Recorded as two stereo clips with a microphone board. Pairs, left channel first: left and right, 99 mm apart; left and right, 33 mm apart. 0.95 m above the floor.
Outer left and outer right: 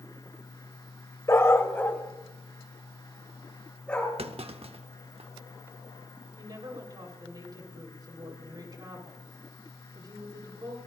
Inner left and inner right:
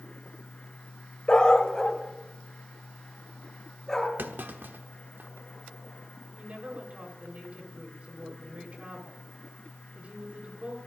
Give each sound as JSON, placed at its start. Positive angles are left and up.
{"t": 1.3, "sound": "a dog barking", "side_deg": 30, "distance_m": 1.0}
{"t": 4.2, "sound": "a clunk", "side_deg": -70, "distance_m": 1.0}
{"t": 6.4, "sound": "a woman speaking", "side_deg": -40, "distance_m": 4.0}